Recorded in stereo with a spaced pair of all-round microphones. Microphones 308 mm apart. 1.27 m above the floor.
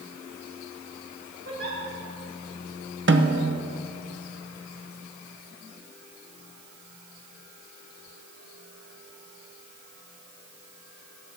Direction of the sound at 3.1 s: 40° right (ahead or behind).